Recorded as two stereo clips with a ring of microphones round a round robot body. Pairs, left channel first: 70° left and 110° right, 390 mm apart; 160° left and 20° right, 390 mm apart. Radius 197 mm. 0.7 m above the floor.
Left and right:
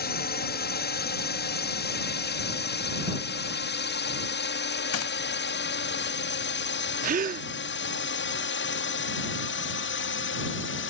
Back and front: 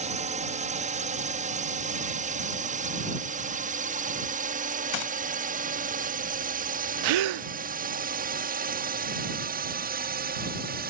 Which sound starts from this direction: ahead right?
A gasp, at 7.0 s.